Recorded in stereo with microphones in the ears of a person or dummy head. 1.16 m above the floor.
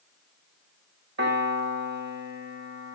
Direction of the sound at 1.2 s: 70° right (ahead or behind).